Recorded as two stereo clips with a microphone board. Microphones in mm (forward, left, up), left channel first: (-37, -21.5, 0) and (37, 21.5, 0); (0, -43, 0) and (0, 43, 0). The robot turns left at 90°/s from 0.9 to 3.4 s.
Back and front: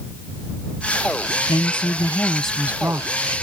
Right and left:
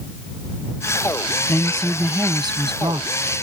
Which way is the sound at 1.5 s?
150° right.